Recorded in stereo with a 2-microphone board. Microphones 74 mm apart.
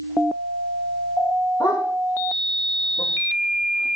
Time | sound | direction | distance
1.6 | a dog barking | 75° left (ahead or behind) | 6 m